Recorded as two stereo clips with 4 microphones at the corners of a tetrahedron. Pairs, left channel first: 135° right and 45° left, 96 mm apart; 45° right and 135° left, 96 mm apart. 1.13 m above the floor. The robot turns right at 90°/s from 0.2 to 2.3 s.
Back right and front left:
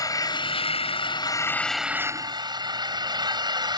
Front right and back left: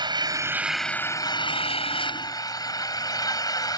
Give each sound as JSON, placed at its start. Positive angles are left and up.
{"t": 0.0, "sound": "an engine running", "azimuth_deg": 175}